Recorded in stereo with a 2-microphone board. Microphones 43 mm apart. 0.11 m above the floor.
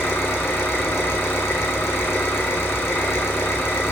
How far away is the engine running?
About 3 m.